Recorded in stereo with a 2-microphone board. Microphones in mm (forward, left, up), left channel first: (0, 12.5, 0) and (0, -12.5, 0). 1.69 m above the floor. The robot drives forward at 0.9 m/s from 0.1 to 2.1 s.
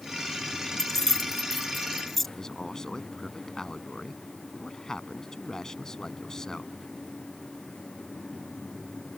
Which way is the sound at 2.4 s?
20° left (ahead or behind).